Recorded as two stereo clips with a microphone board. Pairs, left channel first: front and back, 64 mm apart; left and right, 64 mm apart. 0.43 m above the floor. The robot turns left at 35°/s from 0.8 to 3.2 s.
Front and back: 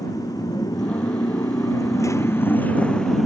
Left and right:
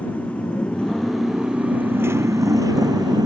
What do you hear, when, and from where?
0.0 s a motorcycle: 20° left; by 3.3 s 90° right